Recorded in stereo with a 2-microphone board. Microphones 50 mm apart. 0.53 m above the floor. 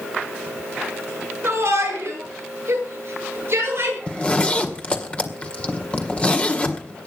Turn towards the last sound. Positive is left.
turn(degrees=25)  # may be behind; listen again after turning